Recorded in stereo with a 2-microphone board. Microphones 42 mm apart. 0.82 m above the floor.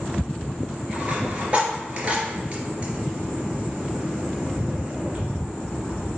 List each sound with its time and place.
0.9 s a dropped coin: 35° right (ahead or behind), 2.5 m